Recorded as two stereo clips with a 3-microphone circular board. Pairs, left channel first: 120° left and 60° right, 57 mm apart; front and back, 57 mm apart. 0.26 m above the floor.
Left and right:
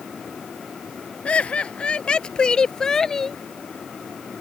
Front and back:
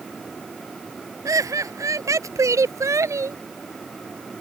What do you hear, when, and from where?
1.2 s laughter: 170° right; by 3.4 s 155° right